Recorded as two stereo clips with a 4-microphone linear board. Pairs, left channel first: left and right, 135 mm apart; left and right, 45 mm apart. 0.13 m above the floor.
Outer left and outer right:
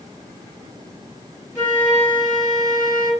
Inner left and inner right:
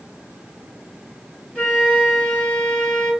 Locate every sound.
1.6 s a flute: 20° left (ahead or behind), 1.8 m